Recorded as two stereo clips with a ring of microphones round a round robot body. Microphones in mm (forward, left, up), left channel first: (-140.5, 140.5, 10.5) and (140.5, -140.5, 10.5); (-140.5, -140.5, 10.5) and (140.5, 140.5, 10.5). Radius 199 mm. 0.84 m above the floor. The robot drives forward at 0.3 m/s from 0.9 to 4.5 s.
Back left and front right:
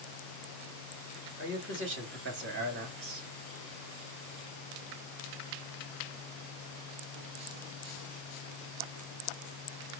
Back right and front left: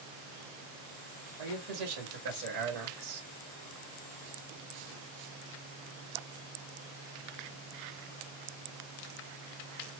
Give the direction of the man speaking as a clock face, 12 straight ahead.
12 o'clock.